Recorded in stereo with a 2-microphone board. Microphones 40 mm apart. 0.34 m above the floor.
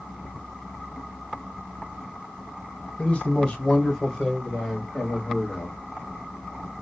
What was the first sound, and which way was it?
A man speaking, 25° left (ahead or behind).